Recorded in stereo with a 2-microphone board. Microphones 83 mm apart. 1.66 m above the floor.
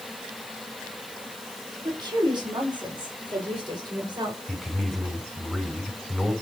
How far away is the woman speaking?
About 4 m.